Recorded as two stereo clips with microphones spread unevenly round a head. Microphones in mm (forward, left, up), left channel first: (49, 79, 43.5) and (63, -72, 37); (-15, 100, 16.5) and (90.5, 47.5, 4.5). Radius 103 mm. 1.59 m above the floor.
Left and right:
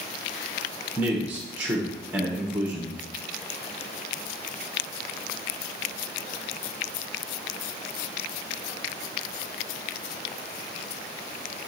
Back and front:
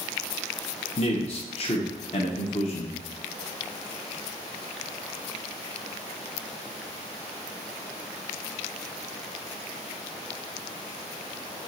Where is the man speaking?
170° right, 0.9 m.